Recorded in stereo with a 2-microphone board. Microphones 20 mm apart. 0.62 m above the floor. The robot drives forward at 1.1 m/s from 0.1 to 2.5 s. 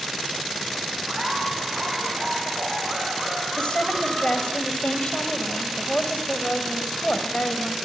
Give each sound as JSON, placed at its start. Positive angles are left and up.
{"t": 1.1, "sound": "laughter", "side_deg": -40, "distance_m": 6.0}
{"t": 3.6, "sound": "a woman speaking", "side_deg": 55, "distance_m": 3.0}